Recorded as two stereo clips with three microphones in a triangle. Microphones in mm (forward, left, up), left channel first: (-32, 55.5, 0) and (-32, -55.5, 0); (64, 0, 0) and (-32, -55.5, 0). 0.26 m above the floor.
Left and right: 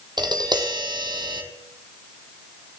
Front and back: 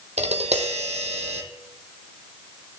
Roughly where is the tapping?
Behind right.